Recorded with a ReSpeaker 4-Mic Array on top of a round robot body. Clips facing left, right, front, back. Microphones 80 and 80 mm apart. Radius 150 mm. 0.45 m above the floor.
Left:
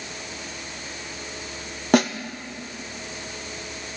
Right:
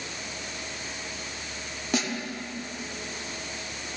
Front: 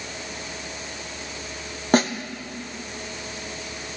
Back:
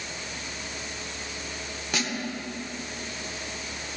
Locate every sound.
1.9 s a snare drum: 50° left, 0.5 m